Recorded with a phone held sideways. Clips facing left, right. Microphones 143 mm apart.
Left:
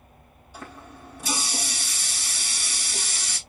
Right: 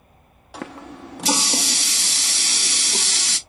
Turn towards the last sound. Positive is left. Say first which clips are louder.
# right 8 dB
turn(degrees=-80)